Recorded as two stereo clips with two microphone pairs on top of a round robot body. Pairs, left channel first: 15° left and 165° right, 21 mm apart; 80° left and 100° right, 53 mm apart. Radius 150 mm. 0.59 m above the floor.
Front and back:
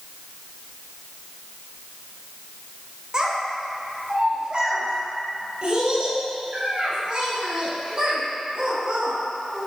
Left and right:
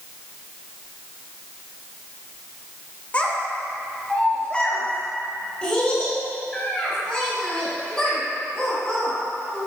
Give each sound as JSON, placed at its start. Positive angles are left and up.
{"t": 3.1, "sound": "a child speaking", "azimuth_deg": 140, "distance_m": 1.9}